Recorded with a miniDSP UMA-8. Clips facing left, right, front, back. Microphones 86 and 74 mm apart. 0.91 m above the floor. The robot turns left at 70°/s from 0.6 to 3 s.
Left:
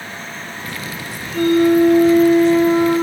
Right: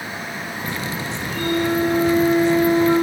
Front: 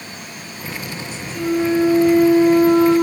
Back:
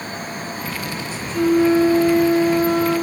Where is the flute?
125° left, 6 m; by 3.0 s 10° left, 6 m.